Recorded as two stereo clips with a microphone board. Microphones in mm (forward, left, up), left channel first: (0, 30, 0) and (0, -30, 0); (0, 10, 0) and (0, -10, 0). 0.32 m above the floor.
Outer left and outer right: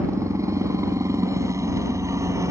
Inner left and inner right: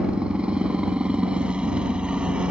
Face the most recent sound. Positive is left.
turn(degrees=-60)  # may be behind; listen again after turning